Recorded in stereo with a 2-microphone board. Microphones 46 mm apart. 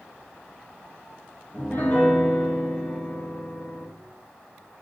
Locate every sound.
1.5 s a piano: 35° left (ahead or behind), 0.8 m